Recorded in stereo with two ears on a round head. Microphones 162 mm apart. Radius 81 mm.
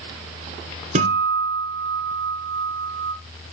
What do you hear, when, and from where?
0.9 s a guitar: 40° right (ahead or behind), 1.8 m